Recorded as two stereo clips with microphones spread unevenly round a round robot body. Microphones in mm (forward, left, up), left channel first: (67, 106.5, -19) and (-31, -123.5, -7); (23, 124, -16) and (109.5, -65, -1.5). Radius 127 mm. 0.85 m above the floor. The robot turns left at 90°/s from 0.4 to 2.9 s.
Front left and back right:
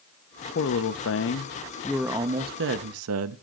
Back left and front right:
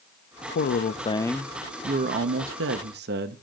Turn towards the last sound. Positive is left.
turn(degrees=-105)